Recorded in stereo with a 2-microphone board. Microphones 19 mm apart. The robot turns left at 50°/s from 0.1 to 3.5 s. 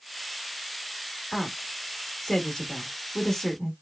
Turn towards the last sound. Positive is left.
turn(degrees=10)  # may be behind; listen again after turning